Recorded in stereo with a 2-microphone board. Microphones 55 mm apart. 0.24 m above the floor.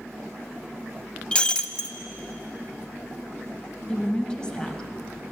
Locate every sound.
1.3 s breaking glass: 20° left (ahead or behind), 0.6 m
3.9 s a woman speaking: 15° left (ahead or behind), 1.0 m